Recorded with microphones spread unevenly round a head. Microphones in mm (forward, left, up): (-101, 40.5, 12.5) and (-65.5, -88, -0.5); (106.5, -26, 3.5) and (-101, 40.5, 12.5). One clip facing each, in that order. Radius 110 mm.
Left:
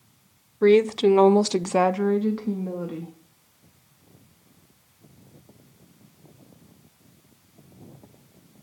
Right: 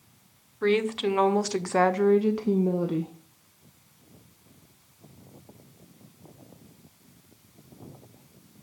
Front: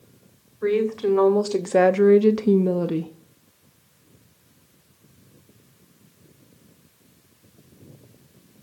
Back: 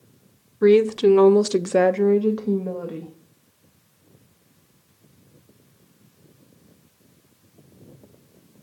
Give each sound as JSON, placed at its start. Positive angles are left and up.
{"t": 0.6, "sound": "a woman speaking", "azimuth_deg": 155, "distance_m": 0.9}